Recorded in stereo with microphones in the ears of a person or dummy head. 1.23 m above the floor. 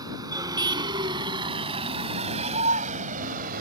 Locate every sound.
0.0 s a vehicle: 20° right (ahead or behind); by 3.6 s 50° right (ahead or behind)